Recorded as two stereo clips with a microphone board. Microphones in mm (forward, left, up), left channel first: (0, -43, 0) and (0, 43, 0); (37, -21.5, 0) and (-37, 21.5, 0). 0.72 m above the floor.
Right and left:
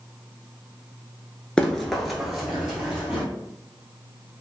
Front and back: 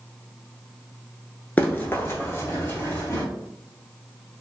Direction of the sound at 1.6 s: 30° right.